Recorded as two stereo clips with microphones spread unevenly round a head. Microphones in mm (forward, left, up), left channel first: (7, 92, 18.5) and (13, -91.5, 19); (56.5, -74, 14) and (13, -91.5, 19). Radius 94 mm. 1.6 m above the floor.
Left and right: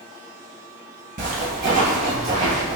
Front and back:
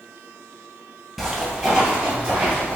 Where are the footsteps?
90° right, 1.9 m; by 2.8 s 130° right, 2 m.